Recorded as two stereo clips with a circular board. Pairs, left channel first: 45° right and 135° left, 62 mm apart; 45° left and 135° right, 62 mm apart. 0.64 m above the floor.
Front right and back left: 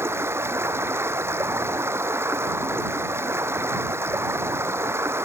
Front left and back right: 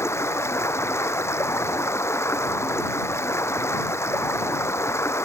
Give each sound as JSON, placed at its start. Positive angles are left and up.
{"t": 0.0, "sound": "running water", "azimuth_deg": 85}